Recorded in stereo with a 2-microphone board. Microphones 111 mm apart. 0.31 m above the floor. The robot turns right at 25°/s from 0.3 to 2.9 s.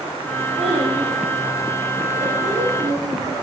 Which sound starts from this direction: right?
A child speaking, at 0.6 s.